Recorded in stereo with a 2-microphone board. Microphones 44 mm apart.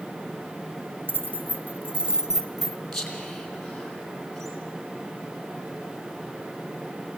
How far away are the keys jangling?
About 1.2 m.